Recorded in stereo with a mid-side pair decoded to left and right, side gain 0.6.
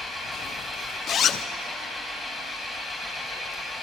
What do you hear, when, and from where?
0.0 s an engine running: 10° left, 4.5 m
1.1 s a zipper: 45° left, 0.9 m